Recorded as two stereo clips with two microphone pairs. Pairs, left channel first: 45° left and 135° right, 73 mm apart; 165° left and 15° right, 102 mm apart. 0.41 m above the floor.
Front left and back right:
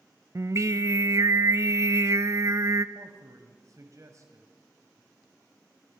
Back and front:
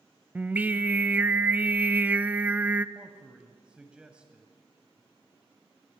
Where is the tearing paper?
No tearing paper in this recording.